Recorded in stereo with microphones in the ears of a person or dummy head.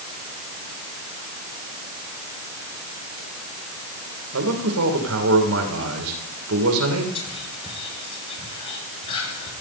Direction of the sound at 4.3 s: 80° right.